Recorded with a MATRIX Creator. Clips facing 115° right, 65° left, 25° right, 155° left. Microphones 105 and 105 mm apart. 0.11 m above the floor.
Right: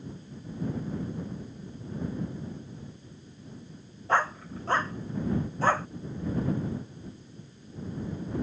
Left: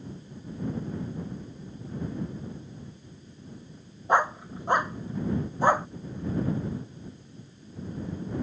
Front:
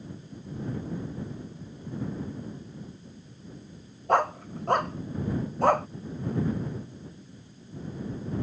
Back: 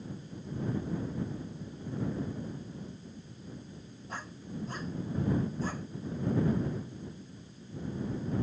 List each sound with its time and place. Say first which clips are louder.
4.1 s a dog barking: left 3 dB, front 18 dB; 5° right